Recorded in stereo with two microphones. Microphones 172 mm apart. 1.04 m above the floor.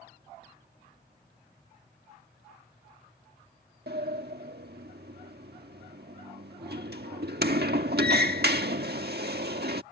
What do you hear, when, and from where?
3.9 s a sliding door: 70° right (ahead or behind)